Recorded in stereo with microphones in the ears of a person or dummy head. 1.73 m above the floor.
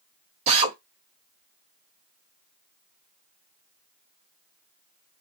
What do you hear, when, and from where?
0.5 s a drill: 35° right (ahead or behind), 0.9 m